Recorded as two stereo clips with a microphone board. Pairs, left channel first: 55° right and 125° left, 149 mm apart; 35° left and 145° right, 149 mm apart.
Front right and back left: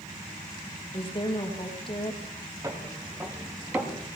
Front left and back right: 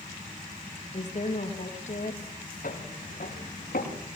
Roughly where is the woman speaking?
Ahead.